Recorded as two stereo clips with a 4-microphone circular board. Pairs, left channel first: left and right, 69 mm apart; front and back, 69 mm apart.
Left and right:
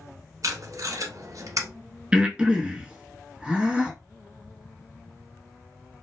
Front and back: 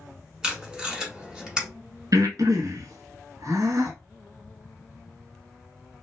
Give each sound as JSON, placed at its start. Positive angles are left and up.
{"t": 0.4, "sound": "tape being pulled", "azimuth_deg": -105, "distance_m": 0.9}
{"t": 2.1, "sound": "breathing", "azimuth_deg": -160, "distance_m": 0.7}